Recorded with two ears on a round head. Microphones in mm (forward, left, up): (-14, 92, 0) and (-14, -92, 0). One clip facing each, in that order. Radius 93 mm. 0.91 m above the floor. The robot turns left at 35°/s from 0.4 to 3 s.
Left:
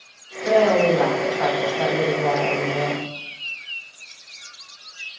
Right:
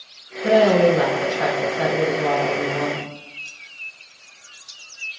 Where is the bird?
No bird in this recording.